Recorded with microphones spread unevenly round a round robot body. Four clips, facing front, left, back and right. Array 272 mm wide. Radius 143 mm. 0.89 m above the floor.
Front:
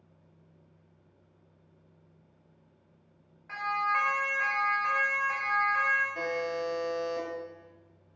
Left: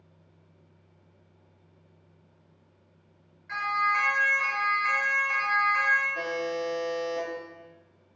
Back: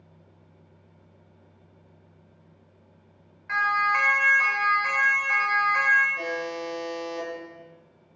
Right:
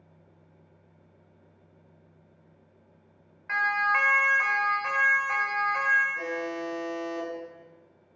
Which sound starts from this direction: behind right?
A siren, at 3.5 s.